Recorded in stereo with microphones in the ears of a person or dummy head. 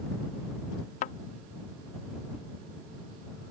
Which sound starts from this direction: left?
A thud, at 1.0 s.